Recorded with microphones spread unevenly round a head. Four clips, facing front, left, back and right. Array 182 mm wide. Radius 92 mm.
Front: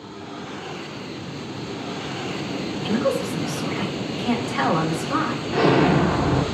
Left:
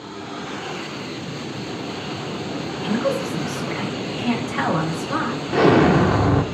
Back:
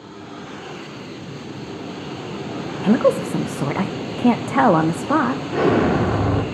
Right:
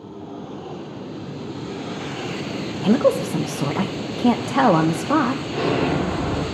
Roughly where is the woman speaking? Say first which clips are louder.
Right 5 dB, back 7 dB; behind right.